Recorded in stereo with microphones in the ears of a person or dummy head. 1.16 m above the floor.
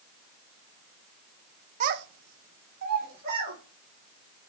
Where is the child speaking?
40° right (ahead or behind), 0.6 m; by 3.6 s 45° right (ahead or behind), 2.0 m.